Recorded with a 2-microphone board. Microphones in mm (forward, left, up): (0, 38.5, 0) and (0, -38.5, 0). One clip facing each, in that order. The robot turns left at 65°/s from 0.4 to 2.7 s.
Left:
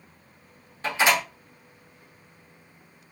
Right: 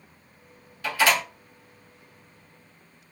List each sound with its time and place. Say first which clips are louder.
0.8 s a door slam: even; 35° left (ahead or behind), 1.3 m; by 1.2 s 10° left (ahead or behind), 1.3 m